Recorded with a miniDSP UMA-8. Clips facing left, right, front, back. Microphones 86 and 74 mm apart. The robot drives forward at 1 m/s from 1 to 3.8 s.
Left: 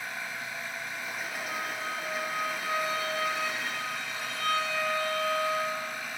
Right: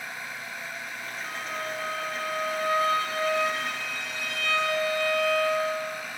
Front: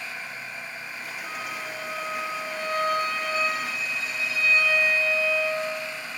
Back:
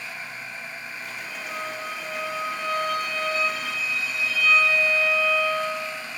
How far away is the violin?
About 7 m.